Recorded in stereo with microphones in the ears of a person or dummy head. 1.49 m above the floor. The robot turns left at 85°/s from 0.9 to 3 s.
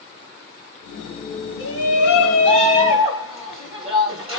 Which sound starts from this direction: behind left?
A shout, at 1.6 s.